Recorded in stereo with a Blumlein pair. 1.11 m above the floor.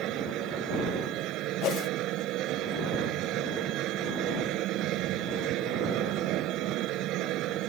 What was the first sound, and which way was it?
A machine running, 35° right.